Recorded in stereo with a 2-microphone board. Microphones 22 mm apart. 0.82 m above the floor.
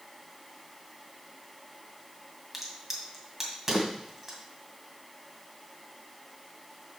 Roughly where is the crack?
Centre.